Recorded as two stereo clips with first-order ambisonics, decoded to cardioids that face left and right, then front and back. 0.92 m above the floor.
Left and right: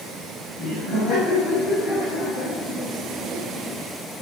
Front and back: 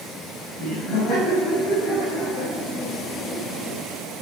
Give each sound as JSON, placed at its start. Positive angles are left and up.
{"t": 0.6, "sound": "laughter", "azimuth_deg": 40, "distance_m": 5.0}